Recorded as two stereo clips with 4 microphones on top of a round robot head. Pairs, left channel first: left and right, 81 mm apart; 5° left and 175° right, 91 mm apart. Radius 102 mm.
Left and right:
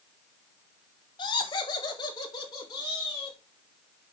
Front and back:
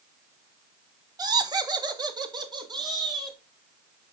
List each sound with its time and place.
1.2 s laughter: 135° left, 1.2 m; by 3.4 s 140° left, 3 m